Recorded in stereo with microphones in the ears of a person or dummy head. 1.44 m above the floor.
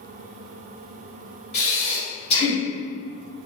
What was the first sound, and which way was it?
Breathing, 35° left (ahead or behind).